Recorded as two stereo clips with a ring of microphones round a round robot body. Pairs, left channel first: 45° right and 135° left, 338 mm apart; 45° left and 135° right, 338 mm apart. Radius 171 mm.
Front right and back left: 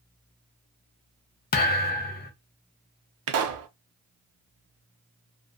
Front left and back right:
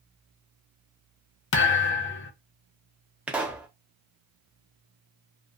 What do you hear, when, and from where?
1.5 s a thud: 5° left, 0.5 m
3.3 s a pop: 140° left, 0.5 m